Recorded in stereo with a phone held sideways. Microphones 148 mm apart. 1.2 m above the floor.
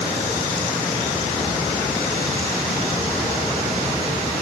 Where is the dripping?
I don't hear dripping.